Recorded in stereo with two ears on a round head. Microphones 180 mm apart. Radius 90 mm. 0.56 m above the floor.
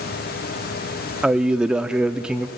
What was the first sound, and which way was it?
A man speaking, 5° right (ahead or behind).